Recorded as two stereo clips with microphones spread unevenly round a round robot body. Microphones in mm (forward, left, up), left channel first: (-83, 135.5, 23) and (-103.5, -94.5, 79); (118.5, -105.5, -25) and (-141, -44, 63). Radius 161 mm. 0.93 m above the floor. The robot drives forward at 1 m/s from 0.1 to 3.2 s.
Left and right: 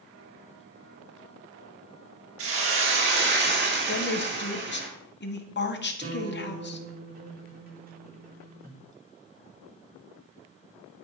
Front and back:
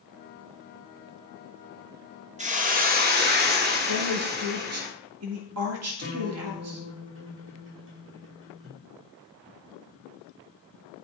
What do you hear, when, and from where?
2.4 s a hiss: 125° right, 3 m; by 4.9 s 135° right, 3.5 m
3.9 s a woman speaking: 115° left, 1.9 m
6.0 s a guitar: 150° right, 5 m